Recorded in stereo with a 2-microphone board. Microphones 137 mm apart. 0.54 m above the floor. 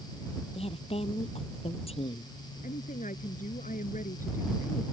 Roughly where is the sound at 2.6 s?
Left.